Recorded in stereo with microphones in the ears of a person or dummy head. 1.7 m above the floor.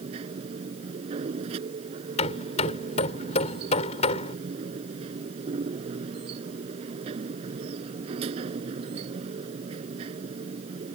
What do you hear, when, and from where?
0.0 s a machine running: 35° right (ahead or behind)
2.2 s hammering: 35° left (ahead or behind)